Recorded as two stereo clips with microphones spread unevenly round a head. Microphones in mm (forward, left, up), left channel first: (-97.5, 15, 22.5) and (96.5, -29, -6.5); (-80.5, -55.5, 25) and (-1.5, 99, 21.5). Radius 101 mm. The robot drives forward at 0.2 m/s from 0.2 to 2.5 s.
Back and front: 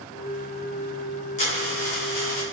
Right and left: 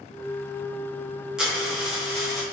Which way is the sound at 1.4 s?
150° left.